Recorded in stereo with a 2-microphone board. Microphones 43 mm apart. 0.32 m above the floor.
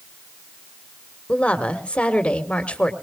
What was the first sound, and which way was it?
A woman speaking, 30° left (ahead or behind).